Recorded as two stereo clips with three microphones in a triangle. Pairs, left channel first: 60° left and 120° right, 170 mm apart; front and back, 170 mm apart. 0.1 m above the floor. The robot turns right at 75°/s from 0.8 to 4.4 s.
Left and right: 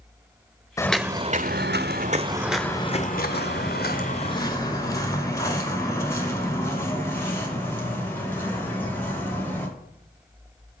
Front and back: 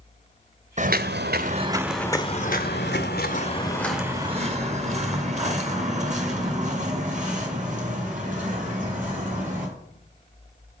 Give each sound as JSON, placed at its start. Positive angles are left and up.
{"t": 0.8, "sound": "footsteps", "azimuth_deg": 130, "distance_m": 0.6}